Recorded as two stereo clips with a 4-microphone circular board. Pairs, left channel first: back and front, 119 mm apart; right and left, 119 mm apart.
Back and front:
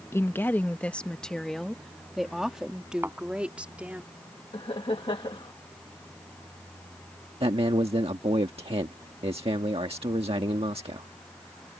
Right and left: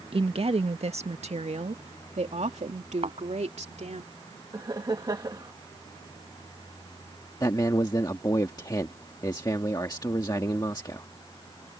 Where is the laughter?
140° left.